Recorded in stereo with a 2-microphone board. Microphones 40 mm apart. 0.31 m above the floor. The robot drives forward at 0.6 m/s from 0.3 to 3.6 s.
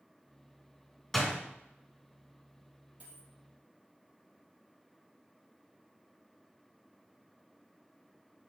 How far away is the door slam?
About 2.5 m.